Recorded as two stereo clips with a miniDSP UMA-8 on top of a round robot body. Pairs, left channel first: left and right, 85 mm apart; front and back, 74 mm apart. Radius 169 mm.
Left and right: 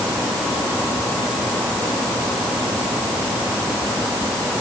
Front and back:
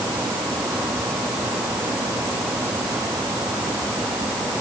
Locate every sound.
Only background noise.